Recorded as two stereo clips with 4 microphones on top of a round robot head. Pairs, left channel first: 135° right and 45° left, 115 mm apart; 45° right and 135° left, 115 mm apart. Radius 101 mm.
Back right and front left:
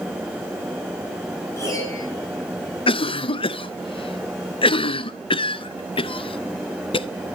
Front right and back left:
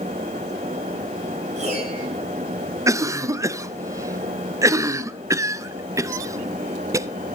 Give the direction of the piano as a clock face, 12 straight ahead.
7 o'clock.